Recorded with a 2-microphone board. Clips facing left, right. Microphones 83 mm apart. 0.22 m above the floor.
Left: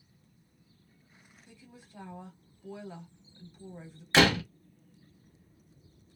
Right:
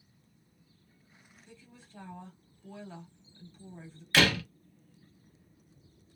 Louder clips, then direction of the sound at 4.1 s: Left 3 dB; 20° left (ahead or behind).